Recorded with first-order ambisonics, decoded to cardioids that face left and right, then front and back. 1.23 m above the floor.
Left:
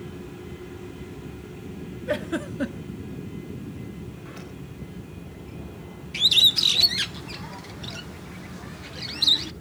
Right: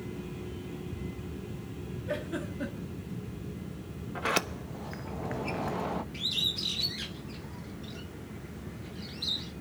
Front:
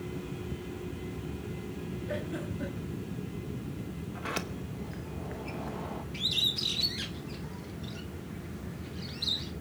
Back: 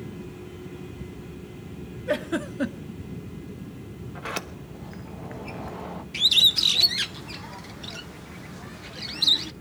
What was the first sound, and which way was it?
A giggle, 145° left.